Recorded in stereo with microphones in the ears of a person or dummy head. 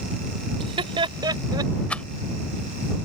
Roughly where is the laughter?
Right.